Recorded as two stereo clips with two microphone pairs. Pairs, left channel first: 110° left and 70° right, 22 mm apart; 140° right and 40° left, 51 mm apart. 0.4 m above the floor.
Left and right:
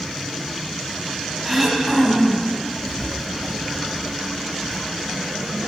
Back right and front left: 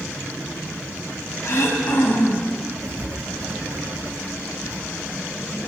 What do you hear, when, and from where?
1.4 s throat clearing: 165° right, 3.5 m
2.8 s writing: 50° left, 3 m